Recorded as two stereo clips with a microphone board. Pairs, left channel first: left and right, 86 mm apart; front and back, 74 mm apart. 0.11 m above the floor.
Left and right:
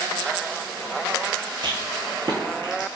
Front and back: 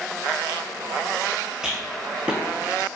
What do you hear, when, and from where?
1.6 s a rattle: 100° right, 0.8 m